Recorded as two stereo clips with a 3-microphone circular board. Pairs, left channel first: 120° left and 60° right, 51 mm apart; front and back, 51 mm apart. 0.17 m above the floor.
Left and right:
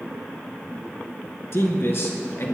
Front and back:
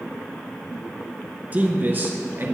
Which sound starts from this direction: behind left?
A man speaking, at 1.5 s.